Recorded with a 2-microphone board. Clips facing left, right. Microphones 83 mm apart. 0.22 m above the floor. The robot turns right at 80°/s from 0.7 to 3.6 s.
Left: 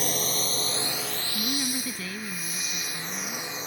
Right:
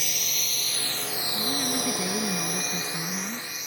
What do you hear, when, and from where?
0.0 s a drone: 40° left (ahead or behind); by 3.7 s 30° left (ahead or behind)
1.4 s a woman speaking: 155° left; by 3.5 s 35° right